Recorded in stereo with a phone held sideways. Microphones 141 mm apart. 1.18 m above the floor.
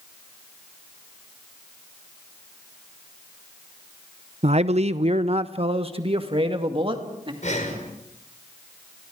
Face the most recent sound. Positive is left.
turn(degrees=60)  # may be behind; listen again after turning